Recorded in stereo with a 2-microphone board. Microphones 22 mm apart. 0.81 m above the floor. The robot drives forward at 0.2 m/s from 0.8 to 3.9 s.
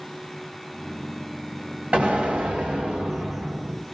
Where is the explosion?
65° right (ahead or behind), 1.9 m; by 3.8 s 60° right (ahead or behind), 1.9 m.